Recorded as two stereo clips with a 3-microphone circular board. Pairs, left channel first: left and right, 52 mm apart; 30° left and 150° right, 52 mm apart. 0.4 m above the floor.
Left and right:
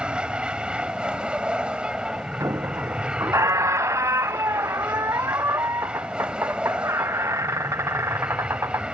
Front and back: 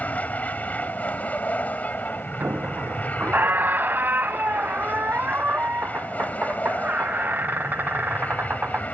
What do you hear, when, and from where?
0.0 s an aircraft: 25° right
2.4 s a squeak: 100° right